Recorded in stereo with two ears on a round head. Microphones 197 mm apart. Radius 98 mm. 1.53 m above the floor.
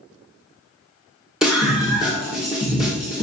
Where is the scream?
5° right (ahead or behind), 1.5 m.